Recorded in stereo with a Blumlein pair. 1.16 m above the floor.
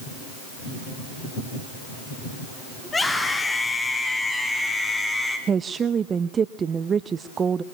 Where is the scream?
10° left, 8.5 m.